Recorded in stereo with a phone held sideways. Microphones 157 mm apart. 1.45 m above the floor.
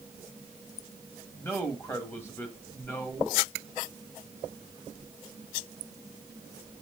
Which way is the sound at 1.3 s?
15° left (ahead or behind).